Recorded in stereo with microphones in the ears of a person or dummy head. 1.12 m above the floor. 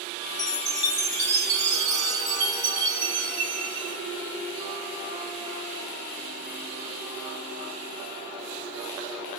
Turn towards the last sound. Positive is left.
turn(degrees=-40)  # may be behind; listen again after turning